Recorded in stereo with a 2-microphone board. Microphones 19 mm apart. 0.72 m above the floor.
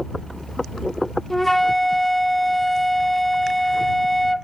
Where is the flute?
15° left (ahead or behind).